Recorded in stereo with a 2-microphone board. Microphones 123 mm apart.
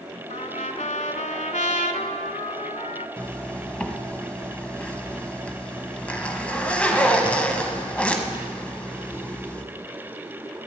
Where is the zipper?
10° left (ahead or behind), 0.9 m.